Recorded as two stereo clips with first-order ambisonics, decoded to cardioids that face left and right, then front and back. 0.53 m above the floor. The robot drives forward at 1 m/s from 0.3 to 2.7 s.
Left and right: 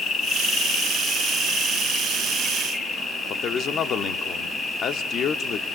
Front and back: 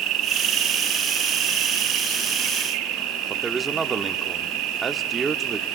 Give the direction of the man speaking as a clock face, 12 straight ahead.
8 o'clock.